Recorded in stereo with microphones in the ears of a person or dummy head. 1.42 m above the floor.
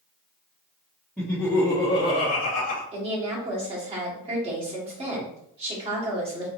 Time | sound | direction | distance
1.2 | laughter | centre (ahead or behind) | 1.4 m
2.9 | a woman speaking | 30° right (ahead or behind) | 2.5 m